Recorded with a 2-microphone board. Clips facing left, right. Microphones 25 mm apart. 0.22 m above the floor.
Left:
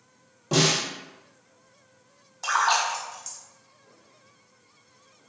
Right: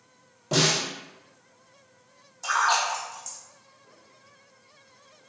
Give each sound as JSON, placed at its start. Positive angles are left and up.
{"t": 0.5, "sound": "a snare drum", "side_deg": 5, "distance_m": 1.5}
{"t": 2.4, "sound": "a splash", "side_deg": 35, "distance_m": 0.8}